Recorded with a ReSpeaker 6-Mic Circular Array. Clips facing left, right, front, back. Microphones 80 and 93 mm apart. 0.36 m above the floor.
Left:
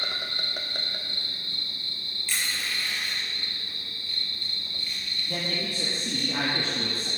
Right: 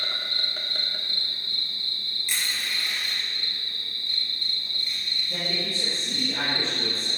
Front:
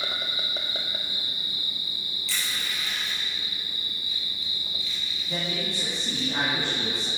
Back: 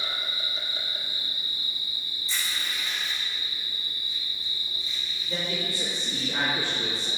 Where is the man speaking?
70° left, 2.5 m.